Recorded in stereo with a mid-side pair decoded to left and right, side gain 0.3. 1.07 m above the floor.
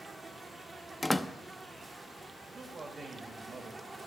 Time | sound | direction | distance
0.0 | an insect | 45° right | 1.1 m
1.0 | a door slam | 20° left | 0.5 m
2.5 | a man speaking | 55° right | 1.8 m